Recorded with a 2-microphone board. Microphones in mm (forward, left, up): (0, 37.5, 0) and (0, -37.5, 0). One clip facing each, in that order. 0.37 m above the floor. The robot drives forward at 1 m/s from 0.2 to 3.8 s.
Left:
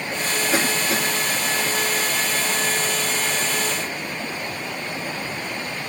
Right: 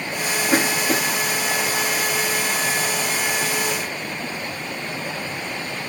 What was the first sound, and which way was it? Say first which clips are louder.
A cough: right 3 dB; 55° right (ahead or behind).